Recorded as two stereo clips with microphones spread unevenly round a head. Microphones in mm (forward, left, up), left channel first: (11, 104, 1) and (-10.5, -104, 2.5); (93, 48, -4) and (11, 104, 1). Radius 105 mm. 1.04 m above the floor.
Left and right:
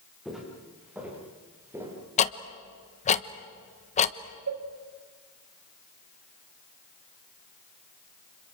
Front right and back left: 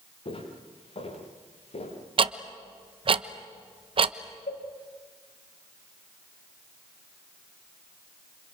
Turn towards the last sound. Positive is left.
turn(degrees=-75)